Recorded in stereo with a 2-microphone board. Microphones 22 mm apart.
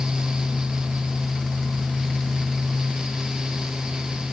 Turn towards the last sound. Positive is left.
No sound to turn to.